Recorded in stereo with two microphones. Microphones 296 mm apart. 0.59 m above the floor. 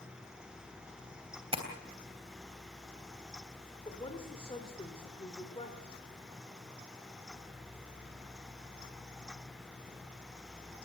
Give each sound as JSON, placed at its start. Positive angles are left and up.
{"t": 1.5, "sound": "tapping", "side_deg": -20, "distance_m": 3.0}
{"t": 3.9, "sound": "a woman speaking", "side_deg": 20, "distance_m": 2.5}